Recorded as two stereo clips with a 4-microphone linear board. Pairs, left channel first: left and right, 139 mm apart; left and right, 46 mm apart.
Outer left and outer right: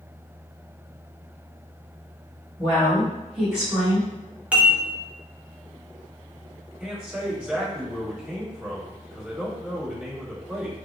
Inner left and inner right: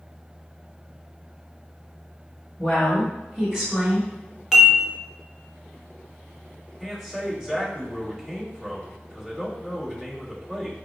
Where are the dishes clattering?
10° right (ahead or behind), 1.0 m.